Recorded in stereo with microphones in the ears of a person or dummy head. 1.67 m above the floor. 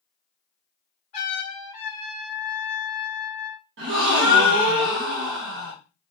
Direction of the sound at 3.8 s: 65° right (ahead or behind).